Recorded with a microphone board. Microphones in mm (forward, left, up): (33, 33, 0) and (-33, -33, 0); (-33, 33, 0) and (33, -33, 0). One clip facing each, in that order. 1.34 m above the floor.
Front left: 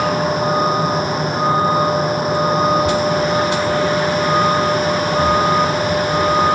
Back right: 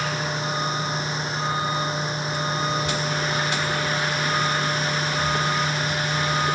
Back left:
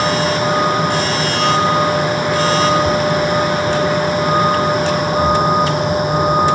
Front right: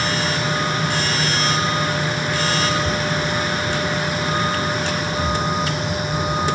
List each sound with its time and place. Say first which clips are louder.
0.0 s a vehicle: front left 10 dB, back left 7 dB; 90° left